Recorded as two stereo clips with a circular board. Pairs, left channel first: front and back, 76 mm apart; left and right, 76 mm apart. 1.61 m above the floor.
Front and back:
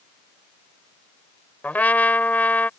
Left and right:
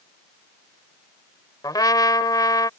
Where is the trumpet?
65° left.